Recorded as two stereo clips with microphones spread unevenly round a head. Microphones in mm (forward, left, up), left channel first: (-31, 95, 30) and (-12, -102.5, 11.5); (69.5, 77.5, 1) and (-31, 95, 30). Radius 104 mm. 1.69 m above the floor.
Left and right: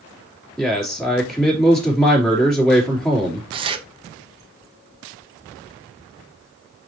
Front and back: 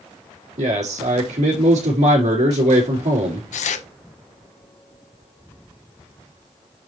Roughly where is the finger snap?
No finger snap in this recording.